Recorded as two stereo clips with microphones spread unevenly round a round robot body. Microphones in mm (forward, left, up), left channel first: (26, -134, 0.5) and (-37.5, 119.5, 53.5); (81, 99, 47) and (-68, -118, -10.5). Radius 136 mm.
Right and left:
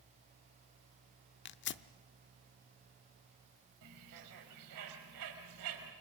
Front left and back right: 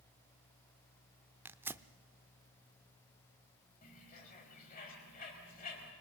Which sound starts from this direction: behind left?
A bird, at 3.8 s.